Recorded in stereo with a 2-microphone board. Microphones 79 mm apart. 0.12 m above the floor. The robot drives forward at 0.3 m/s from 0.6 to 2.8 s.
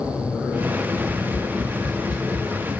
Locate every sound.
0.9 s tapping: 60° left (ahead or behind), 1.4 m; by 2.5 s 65° left (ahead or behind), 1.3 m